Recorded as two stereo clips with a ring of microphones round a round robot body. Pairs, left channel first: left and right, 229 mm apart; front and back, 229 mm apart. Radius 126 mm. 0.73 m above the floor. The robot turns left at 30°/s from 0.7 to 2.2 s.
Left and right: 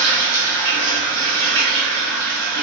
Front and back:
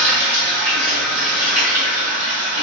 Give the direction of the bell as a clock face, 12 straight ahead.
No bell in this recording.